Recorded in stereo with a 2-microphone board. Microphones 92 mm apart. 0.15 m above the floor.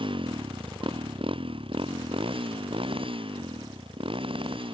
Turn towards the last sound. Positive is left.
turn(degrees=-80)